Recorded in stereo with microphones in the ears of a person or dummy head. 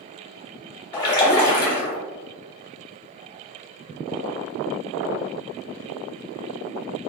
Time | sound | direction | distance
0.9 | a splash | 20° left (ahead or behind) | 0.9 m